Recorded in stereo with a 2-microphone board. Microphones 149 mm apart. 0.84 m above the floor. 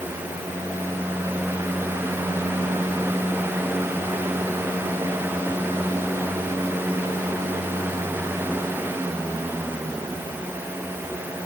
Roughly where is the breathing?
I don't hear breathing.